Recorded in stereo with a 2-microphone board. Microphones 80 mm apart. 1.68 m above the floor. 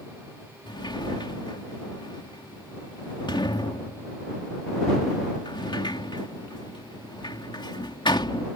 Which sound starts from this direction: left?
A sliding door, at 0.7 s.